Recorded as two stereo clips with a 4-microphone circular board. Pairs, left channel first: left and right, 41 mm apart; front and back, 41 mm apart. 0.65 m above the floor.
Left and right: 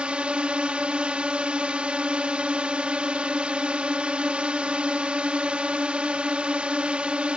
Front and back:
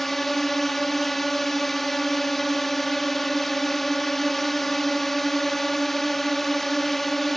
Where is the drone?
80° right.